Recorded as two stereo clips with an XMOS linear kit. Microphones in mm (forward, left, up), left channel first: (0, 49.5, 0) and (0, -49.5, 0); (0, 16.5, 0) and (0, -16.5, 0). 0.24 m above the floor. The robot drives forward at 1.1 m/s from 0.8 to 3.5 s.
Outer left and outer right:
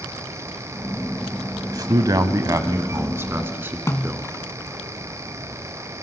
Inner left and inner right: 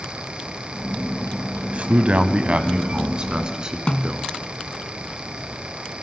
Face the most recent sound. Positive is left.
turn(degrees=30)  # may be behind; listen again after turning